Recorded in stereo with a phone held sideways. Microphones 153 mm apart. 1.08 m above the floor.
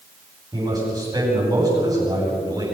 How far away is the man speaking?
About 9.5 m.